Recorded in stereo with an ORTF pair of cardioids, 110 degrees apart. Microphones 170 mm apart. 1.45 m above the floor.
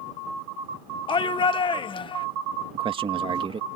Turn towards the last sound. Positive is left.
turn(degrees=-35)